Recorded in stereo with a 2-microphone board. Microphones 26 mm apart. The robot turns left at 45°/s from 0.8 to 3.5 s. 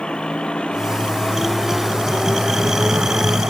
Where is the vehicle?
45° left (ahead or behind); by 3.5 s 70° right (ahead or behind).